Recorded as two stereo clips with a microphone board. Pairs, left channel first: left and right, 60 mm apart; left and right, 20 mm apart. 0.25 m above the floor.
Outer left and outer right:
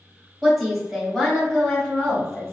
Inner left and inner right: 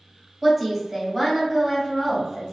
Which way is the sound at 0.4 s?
5° right (ahead or behind).